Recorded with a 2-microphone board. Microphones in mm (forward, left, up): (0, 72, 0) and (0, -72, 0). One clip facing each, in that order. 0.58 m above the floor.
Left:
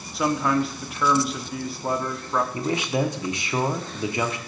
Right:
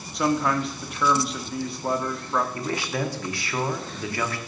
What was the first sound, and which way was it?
A man speaking, centre (ahead or behind).